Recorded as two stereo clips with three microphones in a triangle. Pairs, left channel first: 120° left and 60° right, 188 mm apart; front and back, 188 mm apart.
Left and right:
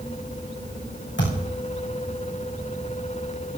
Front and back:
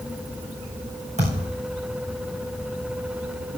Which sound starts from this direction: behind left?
A thud, at 1.2 s.